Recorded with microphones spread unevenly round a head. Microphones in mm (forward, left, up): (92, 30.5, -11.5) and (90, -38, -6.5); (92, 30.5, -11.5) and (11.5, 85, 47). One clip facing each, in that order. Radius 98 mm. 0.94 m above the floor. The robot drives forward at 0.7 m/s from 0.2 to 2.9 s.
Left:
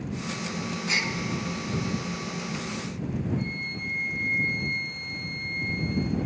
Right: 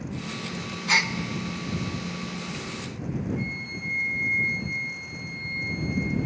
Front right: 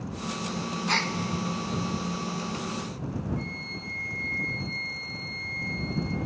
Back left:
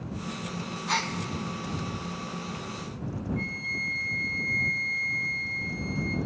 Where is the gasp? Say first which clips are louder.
Right 6 dB, even; 90° right, 0.6 m; by 1.1 s 110° right, 0.6 m.